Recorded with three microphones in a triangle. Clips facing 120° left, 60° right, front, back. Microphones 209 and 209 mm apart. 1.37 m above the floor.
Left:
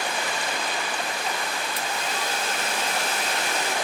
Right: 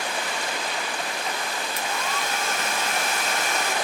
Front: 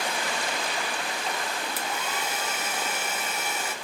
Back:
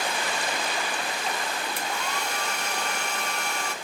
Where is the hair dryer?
85° left, 1.3 m.